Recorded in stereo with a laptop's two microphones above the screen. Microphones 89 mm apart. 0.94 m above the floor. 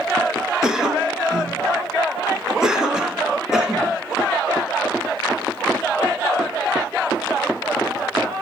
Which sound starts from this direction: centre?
A cough, at 0.6 s.